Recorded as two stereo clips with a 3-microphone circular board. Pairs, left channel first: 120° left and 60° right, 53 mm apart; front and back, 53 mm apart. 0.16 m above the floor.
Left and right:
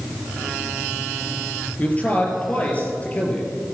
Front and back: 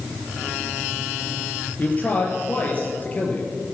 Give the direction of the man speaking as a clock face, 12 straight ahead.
10 o'clock.